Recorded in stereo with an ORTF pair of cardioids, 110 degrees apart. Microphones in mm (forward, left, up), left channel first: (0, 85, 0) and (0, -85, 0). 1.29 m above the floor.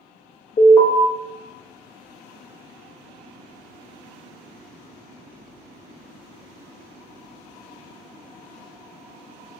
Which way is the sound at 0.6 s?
35° left.